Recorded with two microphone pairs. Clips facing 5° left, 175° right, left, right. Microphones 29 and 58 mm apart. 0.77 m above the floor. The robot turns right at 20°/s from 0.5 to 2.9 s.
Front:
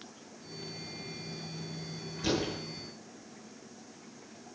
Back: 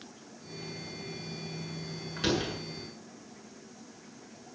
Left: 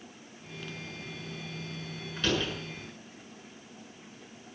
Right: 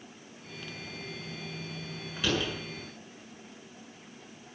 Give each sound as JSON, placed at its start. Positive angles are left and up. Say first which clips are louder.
{"t": 2.2, "sound": "a door slam", "louder": "back 2 dB, even", "azimuth_deg": 180, "distance_m": 8.5}